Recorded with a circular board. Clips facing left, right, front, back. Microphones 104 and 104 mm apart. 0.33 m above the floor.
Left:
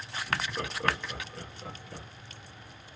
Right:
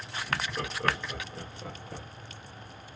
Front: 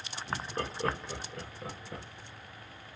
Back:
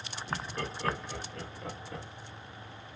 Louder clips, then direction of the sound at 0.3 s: Even, front 1 dB; 20° left.